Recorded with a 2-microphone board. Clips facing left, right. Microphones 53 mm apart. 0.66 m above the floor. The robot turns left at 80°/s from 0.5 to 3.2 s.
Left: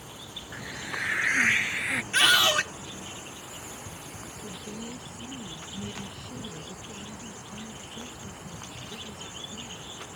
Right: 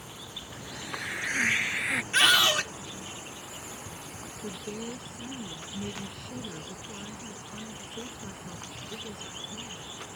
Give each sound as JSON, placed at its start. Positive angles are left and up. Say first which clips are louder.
{"t": 0.5, "sound": "a hiss", "louder": "left 4 dB", "azimuth_deg": 110}
{"t": 2.1, "sound": "a scream", "louder": "left 1 dB", "azimuth_deg": -175}
{"t": 4.4, "sound": "a woman speaking", "louder": "right 3 dB", "side_deg": -75}